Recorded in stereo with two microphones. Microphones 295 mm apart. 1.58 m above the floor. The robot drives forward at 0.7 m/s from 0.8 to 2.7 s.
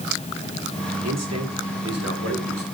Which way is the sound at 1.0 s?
60° right (ahead or behind).